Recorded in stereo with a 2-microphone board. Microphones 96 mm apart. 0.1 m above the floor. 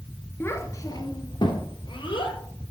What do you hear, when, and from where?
0.4 s a child speaking: 25° left (ahead or behind), 0.8 m; by 2.4 s 65° left (ahead or behind), 1.8 m